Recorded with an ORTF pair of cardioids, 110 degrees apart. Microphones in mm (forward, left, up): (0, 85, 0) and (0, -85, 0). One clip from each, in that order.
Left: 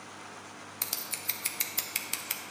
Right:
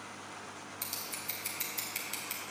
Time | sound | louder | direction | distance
0.8 | scissors | left 5 dB | 40° left | 1.1 m